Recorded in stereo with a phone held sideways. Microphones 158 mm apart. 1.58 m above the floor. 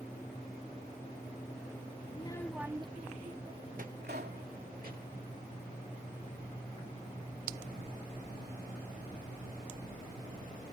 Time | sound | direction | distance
2.1 | a child speaking | 40° left (ahead or behind) | ?
4.0 | a pop | 80° right | ?